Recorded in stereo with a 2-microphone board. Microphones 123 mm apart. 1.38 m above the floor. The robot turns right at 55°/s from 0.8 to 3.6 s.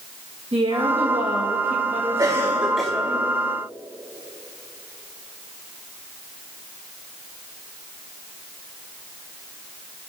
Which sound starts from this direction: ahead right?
A cough, at 2.2 s.